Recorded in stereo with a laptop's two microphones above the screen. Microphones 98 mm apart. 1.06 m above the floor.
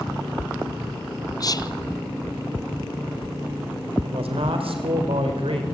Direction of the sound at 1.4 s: 40° left (ahead or behind).